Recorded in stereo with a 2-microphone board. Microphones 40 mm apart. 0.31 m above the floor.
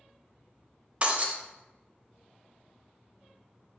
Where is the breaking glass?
30° right (ahead or behind), 0.7 m.